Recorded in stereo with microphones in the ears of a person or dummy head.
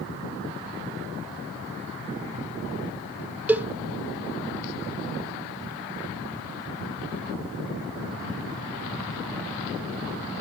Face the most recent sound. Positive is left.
turn(degrees=-10)  # may be behind; listen again after turning